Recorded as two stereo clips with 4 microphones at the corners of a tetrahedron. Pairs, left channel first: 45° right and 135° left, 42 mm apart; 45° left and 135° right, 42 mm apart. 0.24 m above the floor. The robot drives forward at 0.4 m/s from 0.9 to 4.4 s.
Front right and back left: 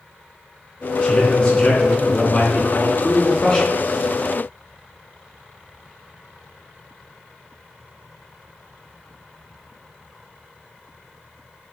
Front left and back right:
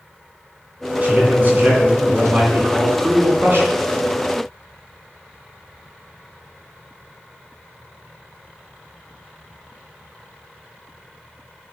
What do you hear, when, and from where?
1.0 s a man speaking: 90° right, 3 m; by 3.7 s 115° right, 3 m